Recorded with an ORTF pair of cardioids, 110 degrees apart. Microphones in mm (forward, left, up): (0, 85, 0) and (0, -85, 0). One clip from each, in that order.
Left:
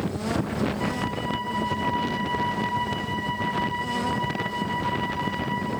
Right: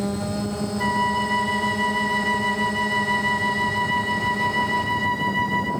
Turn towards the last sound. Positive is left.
turn(degrees=-50)